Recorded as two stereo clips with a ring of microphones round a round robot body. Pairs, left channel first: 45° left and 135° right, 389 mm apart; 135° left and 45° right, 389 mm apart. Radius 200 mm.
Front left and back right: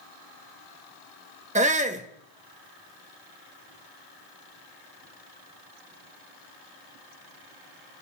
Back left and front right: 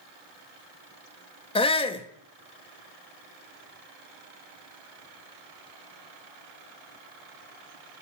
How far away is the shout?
About 1.2 m.